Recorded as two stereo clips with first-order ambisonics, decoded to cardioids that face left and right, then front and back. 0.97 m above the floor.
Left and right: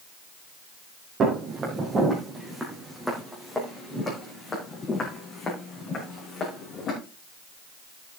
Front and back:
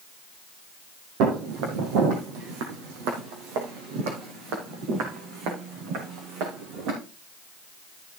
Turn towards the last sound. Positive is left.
turn(degrees=150)